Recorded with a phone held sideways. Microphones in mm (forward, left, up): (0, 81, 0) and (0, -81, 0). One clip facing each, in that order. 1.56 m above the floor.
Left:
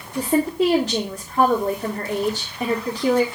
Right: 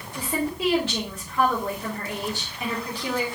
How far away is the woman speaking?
About 1.9 m.